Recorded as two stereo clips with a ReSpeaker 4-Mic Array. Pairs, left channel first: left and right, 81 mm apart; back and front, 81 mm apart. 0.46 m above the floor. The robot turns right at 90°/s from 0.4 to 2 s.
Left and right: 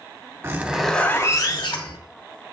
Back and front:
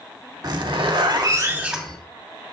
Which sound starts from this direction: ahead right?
A zipper, at 0.4 s.